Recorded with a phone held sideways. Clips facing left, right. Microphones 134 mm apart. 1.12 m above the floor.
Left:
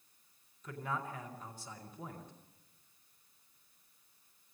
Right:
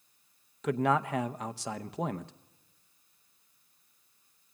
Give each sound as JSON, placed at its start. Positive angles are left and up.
{"t": 0.6, "sound": "a man speaking", "side_deg": -80, "distance_m": 0.8}